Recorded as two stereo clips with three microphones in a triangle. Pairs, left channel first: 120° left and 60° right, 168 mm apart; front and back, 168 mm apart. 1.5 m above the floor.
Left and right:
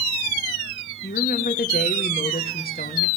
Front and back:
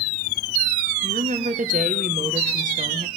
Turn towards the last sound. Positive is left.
turn(degrees=145)